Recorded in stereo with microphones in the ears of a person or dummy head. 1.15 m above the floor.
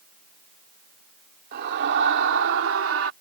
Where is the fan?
I don't hear a fan.